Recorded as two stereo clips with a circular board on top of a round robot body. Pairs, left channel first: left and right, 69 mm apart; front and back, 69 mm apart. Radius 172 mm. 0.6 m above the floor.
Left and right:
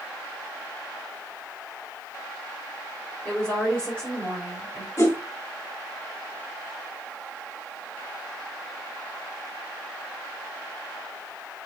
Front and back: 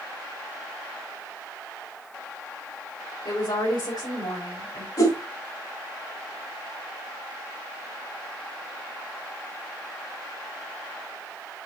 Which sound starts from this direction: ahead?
A woman speaking, at 3.2 s.